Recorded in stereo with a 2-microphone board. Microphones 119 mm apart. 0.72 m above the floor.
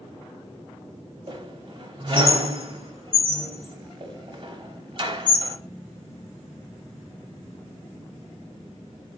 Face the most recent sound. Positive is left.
turn(degrees=-50)  # may be behind; listen again after turning